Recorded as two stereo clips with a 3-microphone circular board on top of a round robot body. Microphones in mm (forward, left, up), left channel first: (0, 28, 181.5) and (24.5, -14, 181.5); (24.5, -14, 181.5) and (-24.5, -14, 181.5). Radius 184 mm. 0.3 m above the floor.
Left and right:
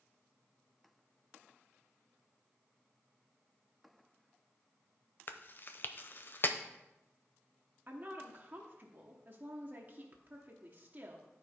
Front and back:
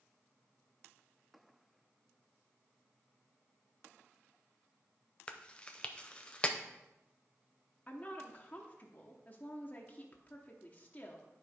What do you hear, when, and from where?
5.3 s chewing: 75° left, 0.5 m
7.9 s a woman speaking: 40° right, 1.2 m